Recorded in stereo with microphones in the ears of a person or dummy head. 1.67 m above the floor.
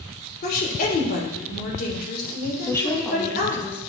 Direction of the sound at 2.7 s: 15° left (ahead or behind).